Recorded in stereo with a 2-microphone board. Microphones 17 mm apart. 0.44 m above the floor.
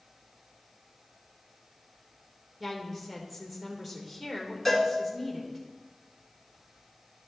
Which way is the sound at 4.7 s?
5° left (ahead or behind).